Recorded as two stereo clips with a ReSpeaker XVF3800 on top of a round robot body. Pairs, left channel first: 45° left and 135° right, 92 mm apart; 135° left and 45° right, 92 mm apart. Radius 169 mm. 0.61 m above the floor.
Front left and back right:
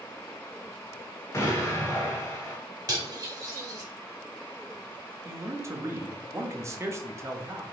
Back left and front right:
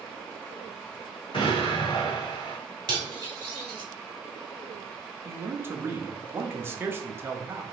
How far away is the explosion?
About 1.3 m.